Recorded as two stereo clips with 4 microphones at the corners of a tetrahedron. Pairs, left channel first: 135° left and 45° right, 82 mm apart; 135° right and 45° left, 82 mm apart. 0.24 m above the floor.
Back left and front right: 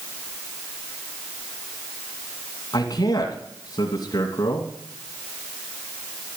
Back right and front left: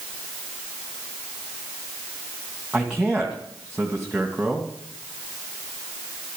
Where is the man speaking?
130° left, 2 m.